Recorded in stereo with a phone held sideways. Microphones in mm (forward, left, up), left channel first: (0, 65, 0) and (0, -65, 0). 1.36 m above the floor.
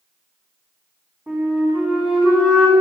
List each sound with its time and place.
1.3 s a flute: 15° right (ahead or behind), 2.5 m